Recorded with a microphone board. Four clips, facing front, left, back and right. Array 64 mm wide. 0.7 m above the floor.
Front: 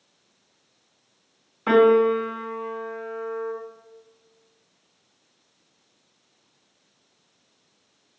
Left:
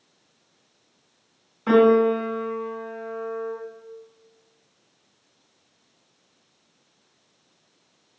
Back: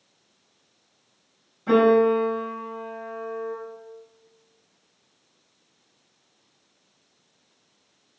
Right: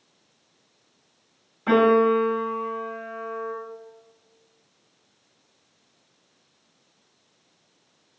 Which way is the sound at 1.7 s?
5° left.